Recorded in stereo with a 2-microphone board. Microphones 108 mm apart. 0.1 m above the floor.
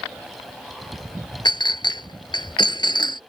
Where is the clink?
45° left (ahead or behind).